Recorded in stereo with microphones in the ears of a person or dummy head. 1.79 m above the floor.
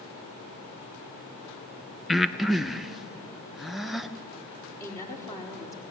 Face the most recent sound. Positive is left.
turn(degrees=20)  # may be behind; listen again after turning